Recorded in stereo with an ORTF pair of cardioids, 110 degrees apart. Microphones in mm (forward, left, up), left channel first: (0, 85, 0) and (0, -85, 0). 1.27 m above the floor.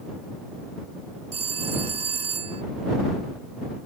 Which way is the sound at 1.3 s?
35° right.